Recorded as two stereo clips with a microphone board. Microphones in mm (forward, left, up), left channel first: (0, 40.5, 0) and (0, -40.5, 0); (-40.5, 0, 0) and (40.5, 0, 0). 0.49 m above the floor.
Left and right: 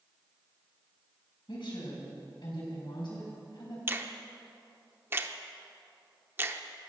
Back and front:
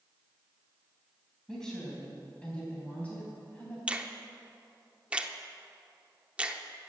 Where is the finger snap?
60° right, 0.7 m.